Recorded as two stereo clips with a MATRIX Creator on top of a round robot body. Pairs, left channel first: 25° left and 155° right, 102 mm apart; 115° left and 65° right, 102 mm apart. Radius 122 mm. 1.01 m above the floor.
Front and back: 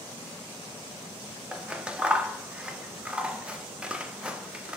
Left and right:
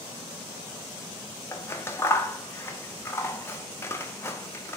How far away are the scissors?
About 0.7 m.